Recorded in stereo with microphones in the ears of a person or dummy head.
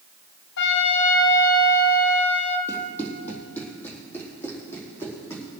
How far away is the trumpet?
About 1.4 m.